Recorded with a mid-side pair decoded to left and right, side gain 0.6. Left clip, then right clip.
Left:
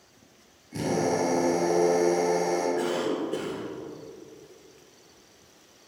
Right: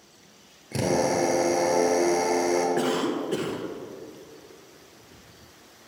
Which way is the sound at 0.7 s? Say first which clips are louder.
Right 3 dB; 60° right.